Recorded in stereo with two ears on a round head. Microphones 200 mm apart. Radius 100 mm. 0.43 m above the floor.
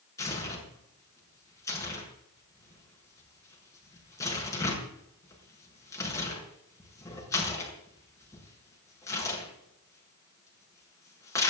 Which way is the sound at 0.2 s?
15° left (ahead or behind).